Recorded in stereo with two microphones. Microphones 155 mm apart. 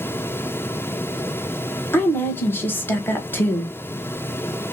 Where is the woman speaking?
15° left (ahead or behind), 0.9 m.